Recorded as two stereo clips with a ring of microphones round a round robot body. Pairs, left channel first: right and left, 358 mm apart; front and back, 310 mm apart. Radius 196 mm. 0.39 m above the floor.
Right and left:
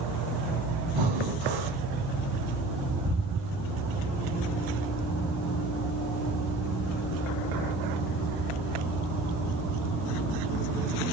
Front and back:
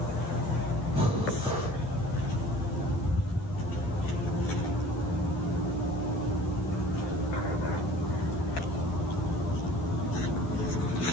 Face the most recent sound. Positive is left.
turn(degrees=105)